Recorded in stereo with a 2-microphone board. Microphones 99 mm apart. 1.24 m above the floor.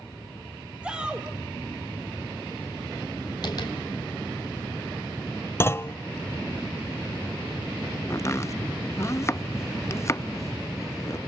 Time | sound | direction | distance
0.8 | a shout | 10° right (ahead or behind) | 1.3 m
3.4 | tapping | 45° left (ahead or behind) | 4.5 m
5.6 | a clunk | 25° left (ahead or behind) | 0.6 m
8.1 | chopping | 30° left (ahead or behind) | 0.6 m